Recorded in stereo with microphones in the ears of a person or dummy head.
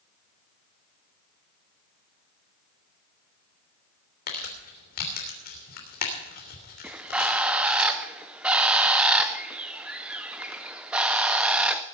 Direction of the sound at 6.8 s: 5° right (ahead or behind).